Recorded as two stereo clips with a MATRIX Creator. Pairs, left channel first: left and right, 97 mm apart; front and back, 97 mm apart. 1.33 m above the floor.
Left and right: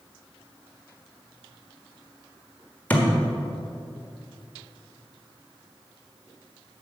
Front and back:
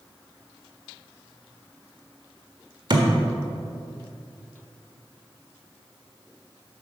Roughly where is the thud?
Behind.